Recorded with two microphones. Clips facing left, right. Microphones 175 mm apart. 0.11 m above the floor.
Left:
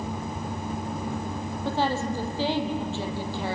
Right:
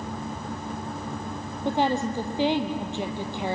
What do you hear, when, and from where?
1.6 s a woman speaking: 20° right (ahead or behind), 3 m